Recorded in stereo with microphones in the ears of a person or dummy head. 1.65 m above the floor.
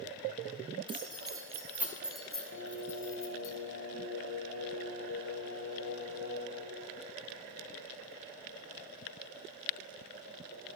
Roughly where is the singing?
Left.